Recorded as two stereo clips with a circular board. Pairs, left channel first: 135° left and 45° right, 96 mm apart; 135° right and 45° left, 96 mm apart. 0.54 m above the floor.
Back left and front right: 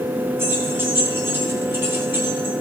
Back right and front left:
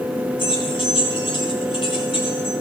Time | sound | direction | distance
0.4 | keys jangling | 110° right | 2.5 m